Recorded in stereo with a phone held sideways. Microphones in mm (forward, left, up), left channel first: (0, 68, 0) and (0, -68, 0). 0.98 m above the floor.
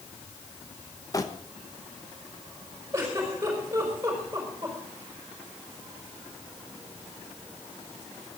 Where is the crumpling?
25° left (ahead or behind), 1.2 m.